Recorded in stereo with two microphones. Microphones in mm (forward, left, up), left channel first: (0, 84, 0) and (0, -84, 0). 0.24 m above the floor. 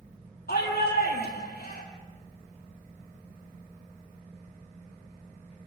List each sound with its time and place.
0.5 s a shout: 70° left (ahead or behind), 9 m